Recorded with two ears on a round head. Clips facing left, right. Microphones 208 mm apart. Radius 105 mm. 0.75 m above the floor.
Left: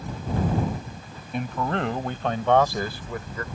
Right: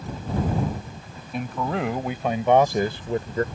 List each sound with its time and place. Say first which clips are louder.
1.3 s a man speaking: even; centre (ahead or behind); by 3.4 s 30° right (ahead or behind)